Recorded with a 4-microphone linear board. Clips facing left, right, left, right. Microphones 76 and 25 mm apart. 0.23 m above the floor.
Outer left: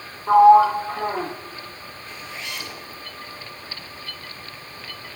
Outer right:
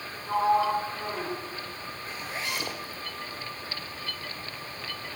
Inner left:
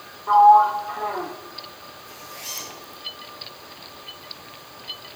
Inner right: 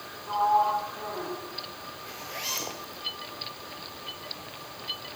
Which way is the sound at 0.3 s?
65° left (ahead or behind).